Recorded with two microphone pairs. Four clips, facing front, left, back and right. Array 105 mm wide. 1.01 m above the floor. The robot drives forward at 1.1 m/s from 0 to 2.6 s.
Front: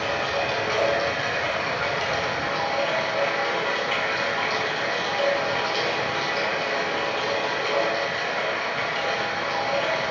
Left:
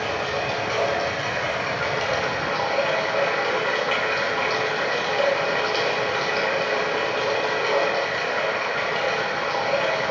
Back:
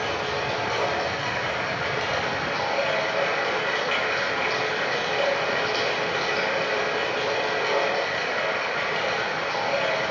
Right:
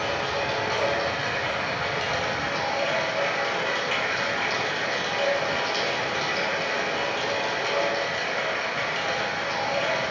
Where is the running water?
30° left, 3.5 m; by 10.1 s 85° left, 1.8 m.